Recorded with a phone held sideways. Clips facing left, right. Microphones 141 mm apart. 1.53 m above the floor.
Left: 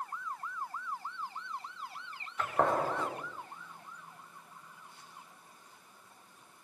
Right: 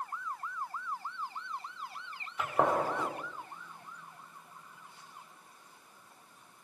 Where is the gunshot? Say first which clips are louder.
Right 1 dB; 10° right (ahead or behind), 5 m.